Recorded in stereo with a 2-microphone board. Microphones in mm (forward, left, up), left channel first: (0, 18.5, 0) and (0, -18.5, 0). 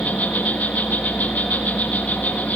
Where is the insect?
55° left (ahead or behind), 4 m.